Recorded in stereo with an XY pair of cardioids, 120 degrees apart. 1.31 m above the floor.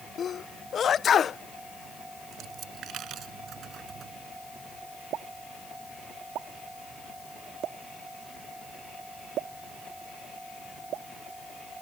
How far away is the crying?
I don't hear crying.